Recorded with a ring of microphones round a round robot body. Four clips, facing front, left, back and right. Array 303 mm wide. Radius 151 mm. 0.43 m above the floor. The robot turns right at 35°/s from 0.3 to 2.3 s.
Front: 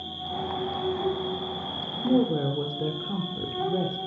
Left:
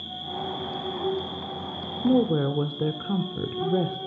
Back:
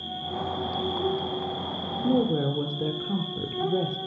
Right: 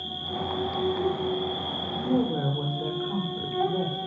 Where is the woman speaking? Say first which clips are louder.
Left 4 dB, front 1 dB; 95° left, 1.2 m; by 4.0 s 105° left, 1.2 m.